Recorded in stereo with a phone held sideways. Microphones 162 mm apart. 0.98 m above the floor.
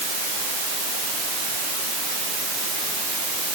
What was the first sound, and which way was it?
Only background noise.